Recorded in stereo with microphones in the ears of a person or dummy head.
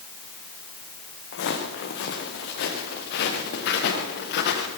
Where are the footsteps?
75° left (ahead or behind), 4.5 m; by 4.7 s 70° left (ahead or behind), 6.5 m.